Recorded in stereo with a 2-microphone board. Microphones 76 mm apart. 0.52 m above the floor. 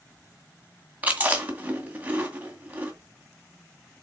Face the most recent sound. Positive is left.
turn(degrees=-20)  # may be behind; listen again after turning